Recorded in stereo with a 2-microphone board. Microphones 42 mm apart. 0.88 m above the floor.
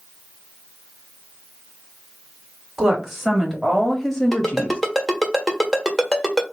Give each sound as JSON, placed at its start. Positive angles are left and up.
{"t": 2.8, "sound": "a woman speaking", "side_deg": -10, "distance_m": 2.5}
{"t": 4.3, "sound": "a ringtone", "side_deg": -5, "distance_m": 1.3}